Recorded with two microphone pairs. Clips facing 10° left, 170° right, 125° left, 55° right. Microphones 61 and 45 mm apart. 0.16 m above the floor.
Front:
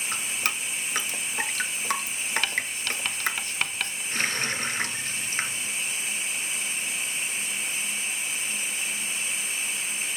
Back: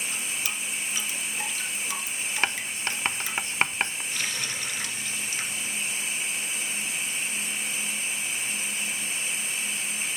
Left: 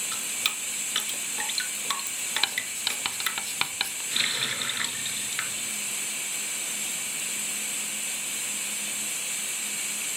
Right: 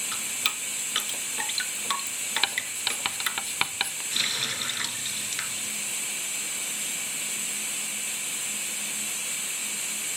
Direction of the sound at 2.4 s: 130° right.